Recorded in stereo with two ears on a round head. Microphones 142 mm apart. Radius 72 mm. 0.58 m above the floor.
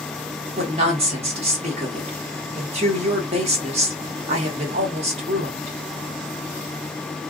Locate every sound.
0.6 s a woman speaking: 45° right (ahead or behind), 1.3 m